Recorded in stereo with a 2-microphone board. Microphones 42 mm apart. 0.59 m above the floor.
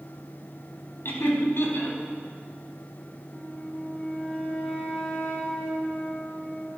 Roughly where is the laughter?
Left.